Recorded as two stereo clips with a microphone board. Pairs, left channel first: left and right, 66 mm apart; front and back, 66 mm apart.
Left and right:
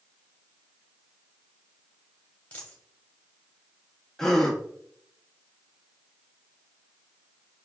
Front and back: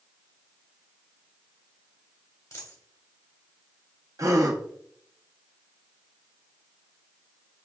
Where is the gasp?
170° left, 0.8 m.